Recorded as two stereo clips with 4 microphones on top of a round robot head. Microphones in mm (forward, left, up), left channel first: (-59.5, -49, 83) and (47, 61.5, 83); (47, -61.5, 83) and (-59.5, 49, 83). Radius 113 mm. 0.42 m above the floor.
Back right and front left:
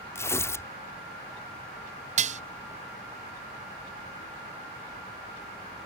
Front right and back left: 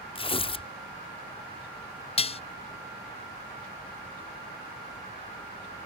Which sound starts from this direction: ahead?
Dishes clattering, at 2.2 s.